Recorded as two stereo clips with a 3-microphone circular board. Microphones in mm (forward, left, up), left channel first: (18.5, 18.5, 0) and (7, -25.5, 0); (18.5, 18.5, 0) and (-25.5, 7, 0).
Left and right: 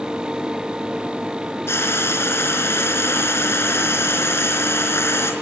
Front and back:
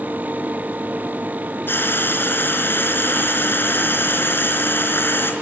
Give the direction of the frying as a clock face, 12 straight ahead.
10 o'clock.